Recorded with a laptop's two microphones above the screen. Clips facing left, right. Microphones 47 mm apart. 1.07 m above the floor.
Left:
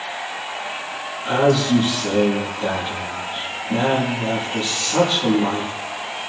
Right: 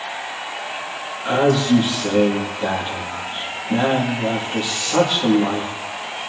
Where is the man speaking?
30° right (ahead or behind), 1.9 m.